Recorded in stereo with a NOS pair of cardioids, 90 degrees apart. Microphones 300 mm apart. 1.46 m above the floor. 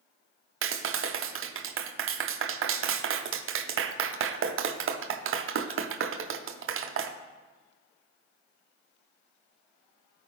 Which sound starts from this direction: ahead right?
A clap, at 0.6 s.